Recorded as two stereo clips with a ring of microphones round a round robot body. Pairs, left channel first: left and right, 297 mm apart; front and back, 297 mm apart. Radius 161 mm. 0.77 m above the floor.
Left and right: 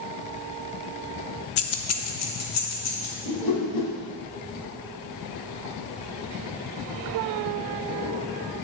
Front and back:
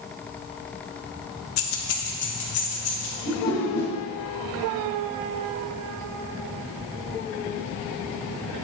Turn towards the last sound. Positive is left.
turn(degrees=80)